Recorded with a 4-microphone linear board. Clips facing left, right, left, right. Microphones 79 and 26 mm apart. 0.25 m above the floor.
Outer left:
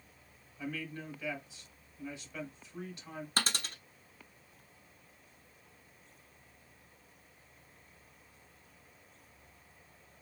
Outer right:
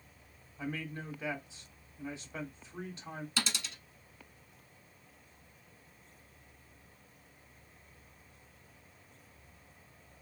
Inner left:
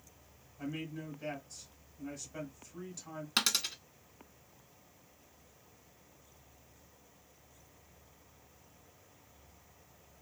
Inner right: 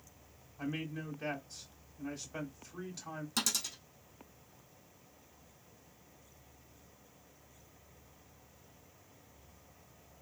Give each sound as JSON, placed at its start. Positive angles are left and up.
{"t": 0.6, "sound": "a man speaking", "side_deg": -25, "distance_m": 1.4}
{"t": 3.4, "sound": "a dropped coin", "side_deg": 50, "distance_m": 1.0}